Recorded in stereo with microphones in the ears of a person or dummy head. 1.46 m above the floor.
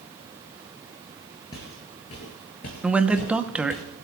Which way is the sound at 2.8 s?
5° right (ahead or behind).